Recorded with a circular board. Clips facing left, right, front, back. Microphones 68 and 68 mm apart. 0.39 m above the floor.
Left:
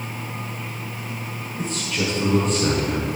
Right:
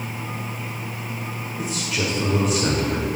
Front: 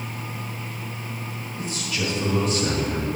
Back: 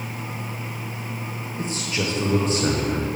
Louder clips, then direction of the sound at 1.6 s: Left 1 dB, back 2 dB; 165° right.